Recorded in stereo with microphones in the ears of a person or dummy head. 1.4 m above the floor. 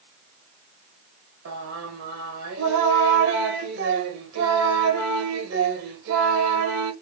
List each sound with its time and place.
1.4 s singing: 80° right, 1.3 m